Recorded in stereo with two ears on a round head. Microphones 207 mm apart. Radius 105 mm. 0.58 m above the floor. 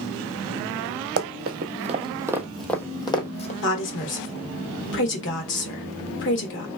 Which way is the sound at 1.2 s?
50° right (ahead or behind).